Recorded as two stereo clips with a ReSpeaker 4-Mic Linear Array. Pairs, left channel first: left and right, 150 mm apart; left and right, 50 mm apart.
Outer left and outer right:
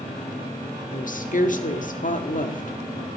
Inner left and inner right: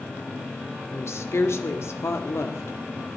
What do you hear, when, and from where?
0.9 s a woman speaking: 60° left (ahead or behind), 1.7 m